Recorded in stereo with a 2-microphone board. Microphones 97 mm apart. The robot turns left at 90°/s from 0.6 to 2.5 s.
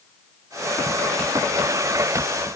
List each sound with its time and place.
Only background noise.